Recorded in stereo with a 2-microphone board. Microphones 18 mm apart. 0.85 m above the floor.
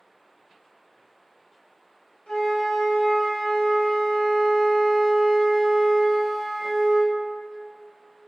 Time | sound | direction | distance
2.3 | a flute | 75° left (ahead or behind) | 0.7 m